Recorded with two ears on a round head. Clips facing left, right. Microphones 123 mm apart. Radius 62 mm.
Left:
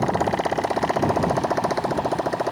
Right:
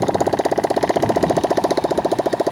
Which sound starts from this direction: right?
A motorcycle, at 0.0 s.